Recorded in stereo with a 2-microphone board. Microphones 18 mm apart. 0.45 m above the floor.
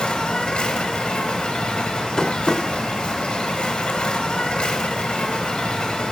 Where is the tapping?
30° left (ahead or behind), 1.2 m.